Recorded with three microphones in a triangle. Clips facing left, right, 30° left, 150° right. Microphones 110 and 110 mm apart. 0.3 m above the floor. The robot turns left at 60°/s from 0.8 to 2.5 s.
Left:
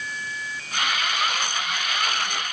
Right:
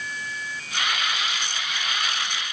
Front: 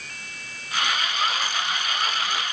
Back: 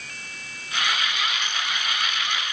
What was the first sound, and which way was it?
Only background noise.